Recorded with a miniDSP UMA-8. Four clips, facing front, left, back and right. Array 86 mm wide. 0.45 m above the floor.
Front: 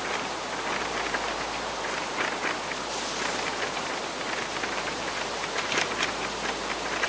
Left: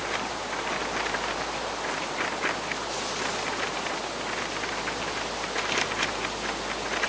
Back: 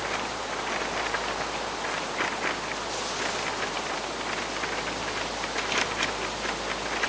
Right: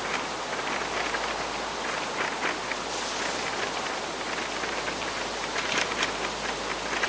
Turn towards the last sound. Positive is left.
No sound to turn to.